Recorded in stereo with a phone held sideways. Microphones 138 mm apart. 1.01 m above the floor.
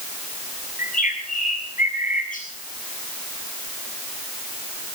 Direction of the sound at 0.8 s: 75° left (ahead or behind).